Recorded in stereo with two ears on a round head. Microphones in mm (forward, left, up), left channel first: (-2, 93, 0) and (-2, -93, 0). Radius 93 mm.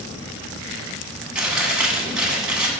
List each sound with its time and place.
1.4 s chewing: 5° right (ahead or behind), 1.5 m